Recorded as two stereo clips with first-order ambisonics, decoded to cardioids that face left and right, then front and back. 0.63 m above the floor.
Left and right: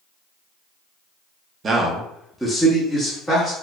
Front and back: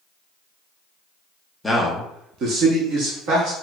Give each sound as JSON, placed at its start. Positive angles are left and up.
{"t": 1.6, "sound": "a man speaking", "azimuth_deg": -70, "distance_m": 0.5}